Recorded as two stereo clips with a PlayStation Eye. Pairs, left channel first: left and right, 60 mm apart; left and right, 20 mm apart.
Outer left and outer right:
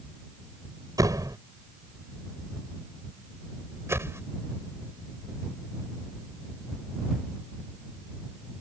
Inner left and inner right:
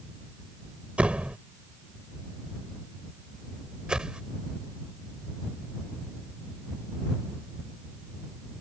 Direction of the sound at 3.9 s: 45° right (ahead or behind).